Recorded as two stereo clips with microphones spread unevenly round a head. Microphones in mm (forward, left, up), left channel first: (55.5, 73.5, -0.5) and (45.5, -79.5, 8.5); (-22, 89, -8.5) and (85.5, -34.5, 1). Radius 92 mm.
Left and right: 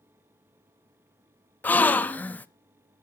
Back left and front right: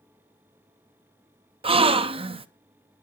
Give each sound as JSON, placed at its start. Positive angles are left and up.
{"t": 1.6, "sound": "a gasp", "azimuth_deg": 5, "distance_m": 0.7}